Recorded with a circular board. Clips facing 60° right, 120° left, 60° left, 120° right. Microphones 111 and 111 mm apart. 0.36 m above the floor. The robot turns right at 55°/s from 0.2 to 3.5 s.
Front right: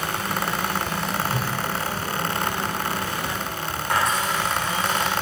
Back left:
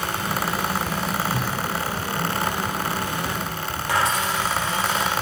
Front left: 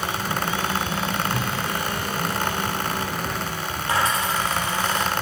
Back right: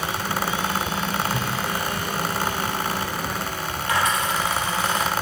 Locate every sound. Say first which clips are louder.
1.3 s a whoosh: back left 1 dB, even; 30° right, 1.3 m; by 1.5 s 20° right, 1.3 m
3.9 s a dropped coin: even, even; 120° left, 5 m